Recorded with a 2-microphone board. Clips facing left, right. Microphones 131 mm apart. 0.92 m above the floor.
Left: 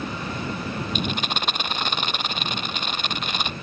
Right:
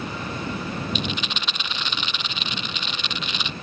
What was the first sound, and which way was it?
A rattle, 50° left (ahead or behind).